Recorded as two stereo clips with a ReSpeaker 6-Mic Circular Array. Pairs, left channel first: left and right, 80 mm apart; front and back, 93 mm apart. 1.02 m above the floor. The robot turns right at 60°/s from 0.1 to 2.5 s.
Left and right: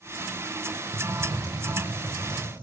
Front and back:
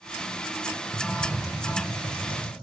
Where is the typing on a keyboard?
75° right, 5.5 m; by 2.5 s 20° left, 5.5 m.